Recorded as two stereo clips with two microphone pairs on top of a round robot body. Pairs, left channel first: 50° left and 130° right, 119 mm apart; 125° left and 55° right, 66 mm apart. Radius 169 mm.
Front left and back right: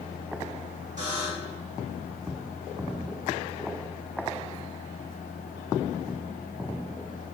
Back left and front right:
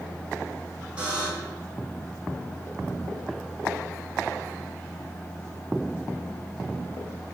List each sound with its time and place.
1.0 s a buzzer: 125° right, 6.5 m